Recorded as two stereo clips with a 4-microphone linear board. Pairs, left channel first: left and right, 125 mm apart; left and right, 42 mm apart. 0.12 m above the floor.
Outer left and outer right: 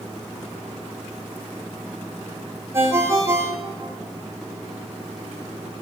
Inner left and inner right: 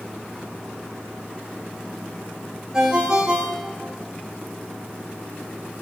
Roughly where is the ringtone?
Right.